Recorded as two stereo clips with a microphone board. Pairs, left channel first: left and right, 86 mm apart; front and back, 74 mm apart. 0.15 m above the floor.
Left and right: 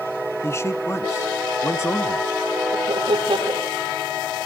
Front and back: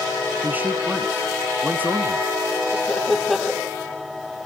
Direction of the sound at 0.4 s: 130° left.